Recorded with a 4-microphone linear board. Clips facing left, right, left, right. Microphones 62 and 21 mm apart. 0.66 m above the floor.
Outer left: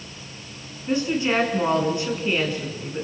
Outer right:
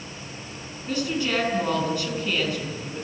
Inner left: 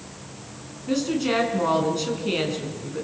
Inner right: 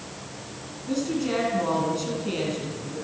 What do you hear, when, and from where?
0.9 s a woman speaking: 25° left (ahead or behind), 6 m